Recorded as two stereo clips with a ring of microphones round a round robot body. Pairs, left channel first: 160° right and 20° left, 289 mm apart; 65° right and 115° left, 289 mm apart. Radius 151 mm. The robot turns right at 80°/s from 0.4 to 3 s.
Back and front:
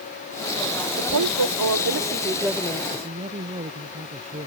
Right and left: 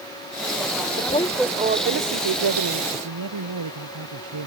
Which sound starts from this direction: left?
A man speaking, at 2.9 s.